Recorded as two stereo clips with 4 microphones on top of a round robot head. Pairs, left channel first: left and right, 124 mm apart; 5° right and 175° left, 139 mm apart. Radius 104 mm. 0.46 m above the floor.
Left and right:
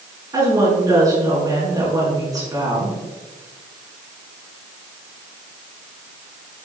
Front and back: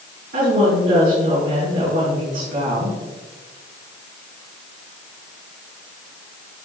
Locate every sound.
0.3 s a woman speaking: 150° right, 5.5 m